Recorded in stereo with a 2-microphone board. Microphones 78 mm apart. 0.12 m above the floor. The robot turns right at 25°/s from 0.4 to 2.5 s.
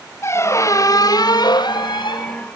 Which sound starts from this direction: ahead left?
A squeak, at 0.2 s.